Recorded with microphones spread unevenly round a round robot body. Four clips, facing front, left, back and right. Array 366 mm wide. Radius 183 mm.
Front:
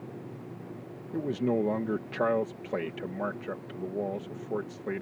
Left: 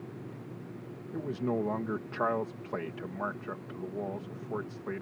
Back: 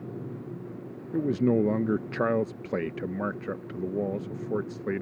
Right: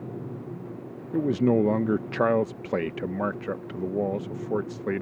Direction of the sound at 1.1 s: 120° right.